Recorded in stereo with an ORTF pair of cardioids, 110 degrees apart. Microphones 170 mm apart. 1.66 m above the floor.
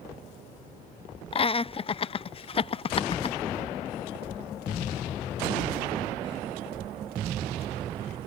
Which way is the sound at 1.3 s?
35° left.